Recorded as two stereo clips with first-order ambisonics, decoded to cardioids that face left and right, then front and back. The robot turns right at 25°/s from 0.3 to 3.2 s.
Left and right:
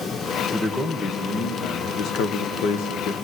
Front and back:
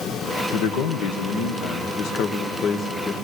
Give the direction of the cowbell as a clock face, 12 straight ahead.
No cowbell in this recording.